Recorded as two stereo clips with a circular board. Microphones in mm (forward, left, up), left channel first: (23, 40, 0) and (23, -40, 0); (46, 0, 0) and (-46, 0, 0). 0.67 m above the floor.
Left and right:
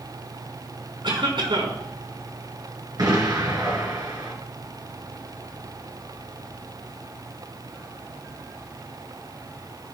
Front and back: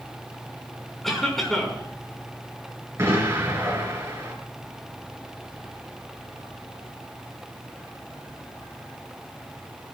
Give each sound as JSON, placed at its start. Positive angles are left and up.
{"t": 1.0, "sound": "a cough", "azimuth_deg": -85, "distance_m": 6.0}
{"t": 3.0, "sound": "an explosion", "azimuth_deg": -120, "distance_m": 3.5}